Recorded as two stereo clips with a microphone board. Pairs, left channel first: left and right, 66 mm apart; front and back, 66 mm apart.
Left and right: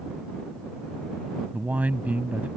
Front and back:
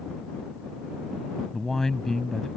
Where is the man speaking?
75° right.